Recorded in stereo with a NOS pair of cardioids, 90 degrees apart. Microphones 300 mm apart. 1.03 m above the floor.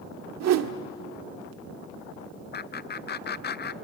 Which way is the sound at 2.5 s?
35° left.